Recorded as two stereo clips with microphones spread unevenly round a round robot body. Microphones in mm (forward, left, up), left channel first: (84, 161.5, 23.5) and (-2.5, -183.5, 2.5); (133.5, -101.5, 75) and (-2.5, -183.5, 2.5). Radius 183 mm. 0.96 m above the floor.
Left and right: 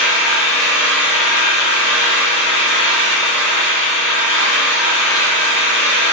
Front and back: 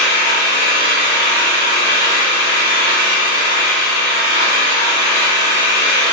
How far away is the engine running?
About 1.4 m.